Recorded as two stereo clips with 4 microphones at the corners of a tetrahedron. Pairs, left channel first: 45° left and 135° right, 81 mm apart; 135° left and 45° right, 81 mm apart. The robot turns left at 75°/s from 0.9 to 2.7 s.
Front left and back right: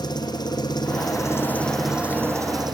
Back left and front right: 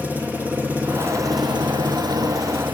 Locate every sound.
0.0 s an engine running: 25° left, 2.5 m; by 2.8 s 110° right, 2.5 m